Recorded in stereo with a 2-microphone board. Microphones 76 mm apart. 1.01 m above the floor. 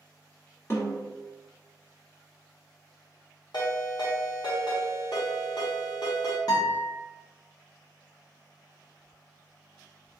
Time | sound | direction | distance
0.7 | a snare drum | 35° left (ahead or behind) | 1.3 m
3.5 | a ringtone | 65° left (ahead or behind) | 1.1 m
6.5 | a guitar | 55° left (ahead or behind) | 1.2 m